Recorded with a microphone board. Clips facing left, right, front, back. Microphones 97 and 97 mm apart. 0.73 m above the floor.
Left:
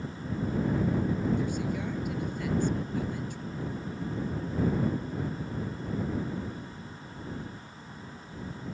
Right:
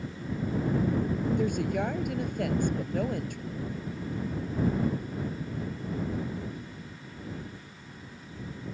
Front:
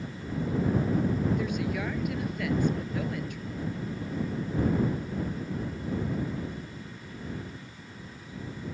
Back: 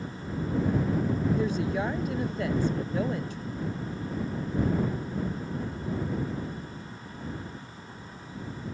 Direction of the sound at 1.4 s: 120° right.